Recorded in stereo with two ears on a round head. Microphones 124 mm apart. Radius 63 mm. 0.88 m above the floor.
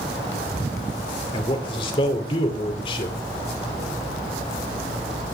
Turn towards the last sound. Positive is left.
turn(degrees=35)  # may be behind; listen again after turning